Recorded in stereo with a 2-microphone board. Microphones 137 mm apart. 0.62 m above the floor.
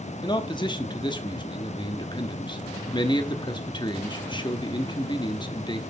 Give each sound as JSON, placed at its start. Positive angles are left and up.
{"t": 0.2, "sound": "a man speaking", "side_deg": 35, "distance_m": 0.9}